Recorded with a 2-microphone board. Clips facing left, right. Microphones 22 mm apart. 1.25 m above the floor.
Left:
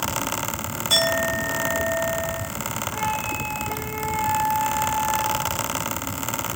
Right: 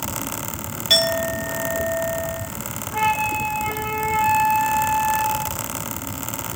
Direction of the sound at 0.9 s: 50° right (ahead or behind).